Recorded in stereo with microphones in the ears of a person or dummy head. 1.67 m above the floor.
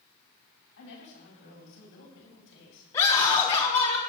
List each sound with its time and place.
0.8 s a woman speaking: 60° left (ahead or behind), 10 m; by 2.8 s 65° left (ahead or behind), 7.5 m
2.9 s a scream: 20° left (ahead or behind), 4.5 m